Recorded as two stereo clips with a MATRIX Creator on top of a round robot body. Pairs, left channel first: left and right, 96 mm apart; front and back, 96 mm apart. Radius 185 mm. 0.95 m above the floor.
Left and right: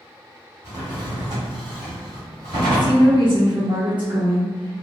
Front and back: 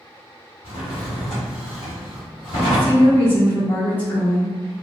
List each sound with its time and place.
0.6 s a drawer: 40° right, 1.6 m
2.5 s a woman speaking: 70° right, 1.4 m